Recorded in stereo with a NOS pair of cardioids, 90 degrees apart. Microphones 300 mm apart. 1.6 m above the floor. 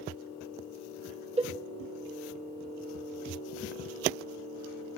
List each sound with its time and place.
1.4 s a cowbell: 20° right, 0.7 m